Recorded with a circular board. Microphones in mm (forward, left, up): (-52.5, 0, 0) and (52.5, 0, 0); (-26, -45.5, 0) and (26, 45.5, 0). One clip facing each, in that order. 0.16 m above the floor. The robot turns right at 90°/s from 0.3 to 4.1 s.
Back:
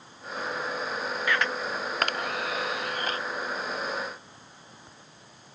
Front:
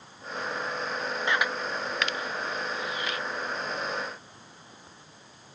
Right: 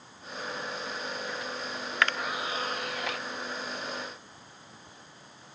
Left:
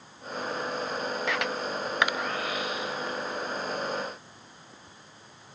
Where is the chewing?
No chewing in this recording.